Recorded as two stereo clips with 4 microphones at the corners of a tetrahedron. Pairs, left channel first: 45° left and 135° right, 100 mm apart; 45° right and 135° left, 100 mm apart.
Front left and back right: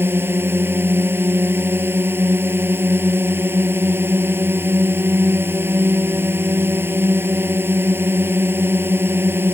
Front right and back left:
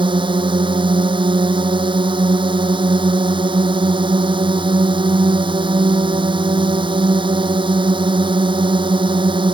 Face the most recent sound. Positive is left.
turn(degrees=160)